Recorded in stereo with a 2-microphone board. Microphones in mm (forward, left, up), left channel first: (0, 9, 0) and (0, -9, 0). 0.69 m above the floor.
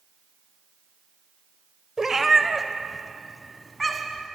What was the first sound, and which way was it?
A cat meowing, 30° right (ahead or behind).